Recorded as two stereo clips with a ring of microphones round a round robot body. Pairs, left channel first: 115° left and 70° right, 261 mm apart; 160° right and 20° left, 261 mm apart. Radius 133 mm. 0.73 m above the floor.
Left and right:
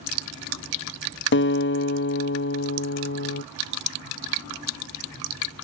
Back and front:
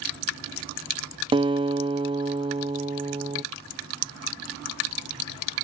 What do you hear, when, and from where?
1.3 s a guitar: 90° left, 0.7 m